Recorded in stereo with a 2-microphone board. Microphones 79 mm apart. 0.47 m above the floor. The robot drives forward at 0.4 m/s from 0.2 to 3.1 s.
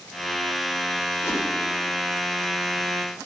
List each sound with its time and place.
1.2 s a whoosh: 30° left (ahead or behind), 1.4 m